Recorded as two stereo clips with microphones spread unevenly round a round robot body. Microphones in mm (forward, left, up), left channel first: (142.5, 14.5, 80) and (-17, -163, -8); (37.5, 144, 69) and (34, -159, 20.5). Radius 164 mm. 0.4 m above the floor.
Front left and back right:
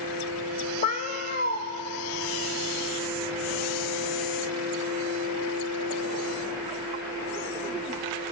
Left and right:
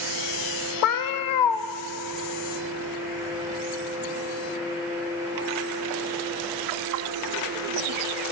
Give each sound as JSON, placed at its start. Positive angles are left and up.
{"t": 0.8, "sound": "a cat meowing", "azimuth_deg": 120, "distance_m": 0.7}